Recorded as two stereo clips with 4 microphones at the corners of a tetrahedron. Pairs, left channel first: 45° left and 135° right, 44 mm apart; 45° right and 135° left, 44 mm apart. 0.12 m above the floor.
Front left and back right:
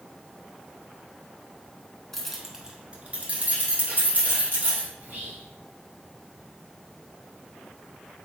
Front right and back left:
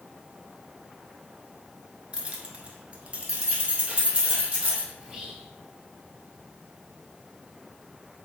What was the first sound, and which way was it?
Keys jangling, 115° left.